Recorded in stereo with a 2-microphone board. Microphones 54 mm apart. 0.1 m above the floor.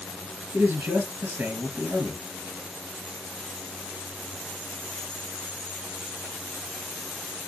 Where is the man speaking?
35° right (ahead or behind), 1.5 m.